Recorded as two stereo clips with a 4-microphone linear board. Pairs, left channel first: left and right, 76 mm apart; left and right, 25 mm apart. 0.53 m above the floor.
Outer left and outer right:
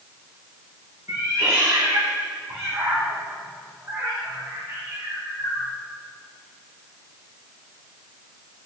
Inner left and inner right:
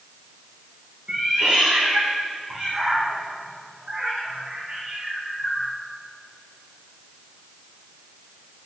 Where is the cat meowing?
30° right (ahead or behind), 4 m.